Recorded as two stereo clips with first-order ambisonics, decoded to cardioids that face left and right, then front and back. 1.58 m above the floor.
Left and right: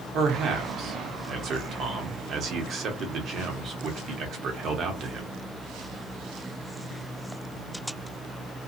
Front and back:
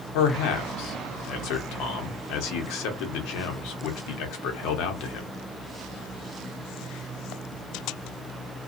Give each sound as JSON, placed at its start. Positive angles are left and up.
{"t": 0.1, "sound": "a man speaking", "azimuth_deg": -30, "distance_m": 0.9}